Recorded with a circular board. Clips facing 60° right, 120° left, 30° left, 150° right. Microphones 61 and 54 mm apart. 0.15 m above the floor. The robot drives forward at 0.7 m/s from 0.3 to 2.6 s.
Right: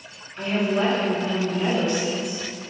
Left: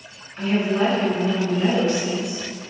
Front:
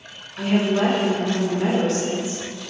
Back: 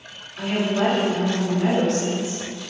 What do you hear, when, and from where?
0.4 s a woman speaking: 50° left, 1.5 m; by 2.4 s 140° left, 1.6 m